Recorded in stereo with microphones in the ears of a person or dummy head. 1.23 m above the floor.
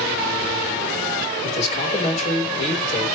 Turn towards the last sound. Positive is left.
turn(degrees=40)  # may be behind; listen again after turning